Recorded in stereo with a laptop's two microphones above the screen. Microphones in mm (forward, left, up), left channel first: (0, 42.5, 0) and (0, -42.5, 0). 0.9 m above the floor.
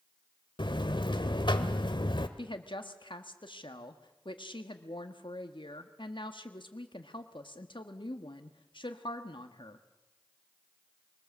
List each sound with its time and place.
0.6 s a buzzer: 65° left (ahead or behind), 1.3 m
2.4 s a woman speaking: 70° left (ahead or behind), 1.4 m